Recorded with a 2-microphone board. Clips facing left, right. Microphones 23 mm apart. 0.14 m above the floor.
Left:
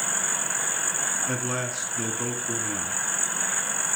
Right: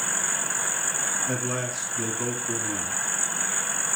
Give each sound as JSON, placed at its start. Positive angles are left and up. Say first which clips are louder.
{"t": 1.3, "sound": "a man speaking", "louder": "even", "side_deg": 15, "distance_m": 1.0}